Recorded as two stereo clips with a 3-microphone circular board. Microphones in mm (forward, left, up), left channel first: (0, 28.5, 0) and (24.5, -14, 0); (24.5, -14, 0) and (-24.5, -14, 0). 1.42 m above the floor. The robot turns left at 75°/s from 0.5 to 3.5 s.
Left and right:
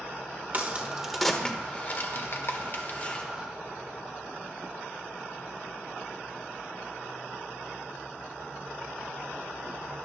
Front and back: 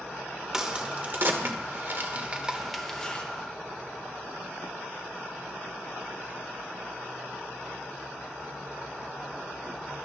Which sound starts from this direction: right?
A crack, at 0.5 s.